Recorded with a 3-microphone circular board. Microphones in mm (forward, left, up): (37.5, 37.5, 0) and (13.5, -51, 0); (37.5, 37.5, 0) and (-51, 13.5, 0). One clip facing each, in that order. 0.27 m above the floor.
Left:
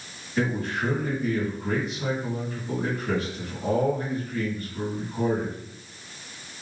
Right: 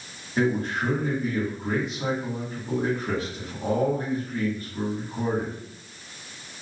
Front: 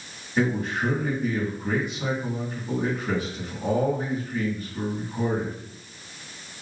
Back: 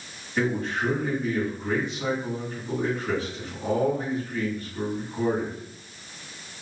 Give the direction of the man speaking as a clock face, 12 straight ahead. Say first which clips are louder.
Right 2 dB, front 1 dB; 2 o'clock.